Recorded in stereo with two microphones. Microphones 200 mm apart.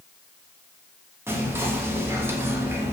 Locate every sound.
1.3 s whispering: 10° right (ahead or behind), 0.5 m